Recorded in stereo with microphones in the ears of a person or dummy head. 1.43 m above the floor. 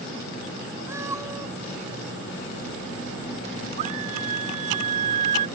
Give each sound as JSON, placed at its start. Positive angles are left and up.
{"t": 0.9, "sound": "a cat meowing", "side_deg": -20}
{"t": 3.8, "sound": "a scream", "side_deg": -50}